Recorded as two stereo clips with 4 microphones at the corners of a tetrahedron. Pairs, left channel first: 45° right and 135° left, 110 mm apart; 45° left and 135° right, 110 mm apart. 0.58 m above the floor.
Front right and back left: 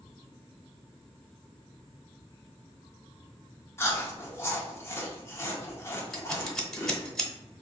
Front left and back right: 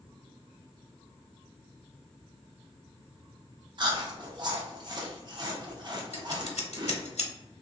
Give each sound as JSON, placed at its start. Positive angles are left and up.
{"t": 3.8, "sound": "chewing", "azimuth_deg": -100, "distance_m": 0.6}
{"t": 6.1, "sound": "scissors", "azimuth_deg": 45, "distance_m": 0.7}